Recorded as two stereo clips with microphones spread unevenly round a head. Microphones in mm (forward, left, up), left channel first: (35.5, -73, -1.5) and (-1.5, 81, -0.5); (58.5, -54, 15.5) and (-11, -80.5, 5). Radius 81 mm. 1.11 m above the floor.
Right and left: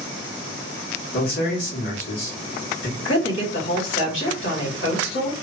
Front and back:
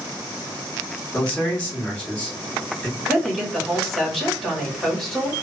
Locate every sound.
1.1 s a man speaking: 60° right, 1.3 m
3.0 s a woman speaking: 65° right, 1.6 m